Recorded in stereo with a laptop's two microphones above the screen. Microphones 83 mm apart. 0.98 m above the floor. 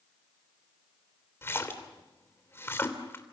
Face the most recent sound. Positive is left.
turn(degrees=30)  # may be behind; listen again after turning